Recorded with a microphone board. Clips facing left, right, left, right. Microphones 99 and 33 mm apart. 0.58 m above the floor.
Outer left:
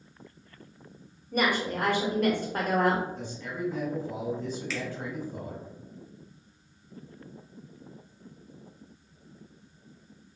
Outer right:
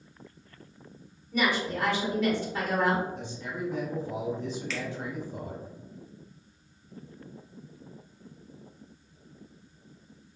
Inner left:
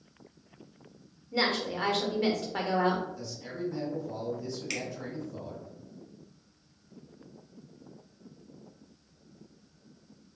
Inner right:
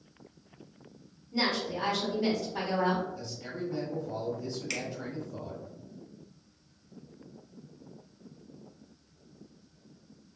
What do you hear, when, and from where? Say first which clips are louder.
1.3 s a woman speaking: outer left 1 dB, inner left 1 dB; 50° left (ahead or behind), 0.9 m
3.1 s a man speaking: even, even; 20° right (ahead or behind), 1.0 m
4.7 s a finger snap: outer left 1 dB, even; 5° left (ahead or behind), 0.7 m